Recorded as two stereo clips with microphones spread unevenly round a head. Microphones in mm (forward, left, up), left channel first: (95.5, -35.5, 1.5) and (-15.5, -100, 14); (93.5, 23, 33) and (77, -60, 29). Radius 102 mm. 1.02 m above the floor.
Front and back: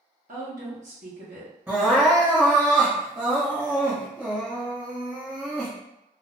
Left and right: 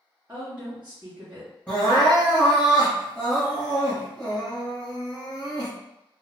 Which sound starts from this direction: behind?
A woman speaking, at 0.3 s.